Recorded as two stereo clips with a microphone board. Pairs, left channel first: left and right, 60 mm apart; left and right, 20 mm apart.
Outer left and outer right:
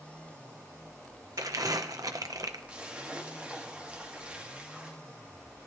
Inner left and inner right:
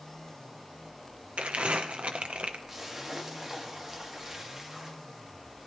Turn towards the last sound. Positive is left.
turn(degrees=-20)  # may be behind; listen again after turning